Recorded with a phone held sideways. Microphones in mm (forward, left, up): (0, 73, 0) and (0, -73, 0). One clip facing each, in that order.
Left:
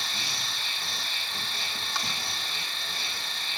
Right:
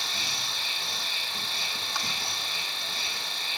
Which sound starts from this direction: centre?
An insect, at 0.0 s.